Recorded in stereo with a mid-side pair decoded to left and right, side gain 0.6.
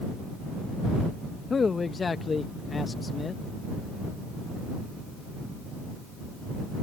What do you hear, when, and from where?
1.5 s a man speaking: 25° left